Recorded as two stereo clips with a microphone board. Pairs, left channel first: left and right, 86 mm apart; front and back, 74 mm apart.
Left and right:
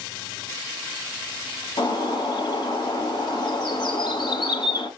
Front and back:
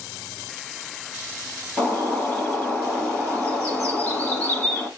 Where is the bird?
70° left, 3 m.